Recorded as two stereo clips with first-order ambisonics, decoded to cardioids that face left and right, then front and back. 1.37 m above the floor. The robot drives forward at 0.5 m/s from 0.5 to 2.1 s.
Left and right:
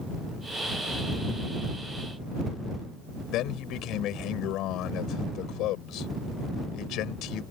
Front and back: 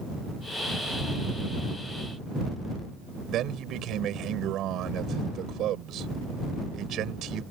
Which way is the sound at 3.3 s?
130° left.